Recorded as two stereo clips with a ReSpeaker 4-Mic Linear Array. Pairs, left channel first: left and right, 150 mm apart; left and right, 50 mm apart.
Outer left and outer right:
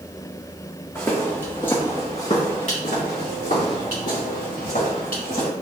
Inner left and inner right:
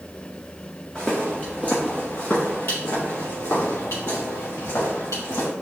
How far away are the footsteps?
About 1.7 m.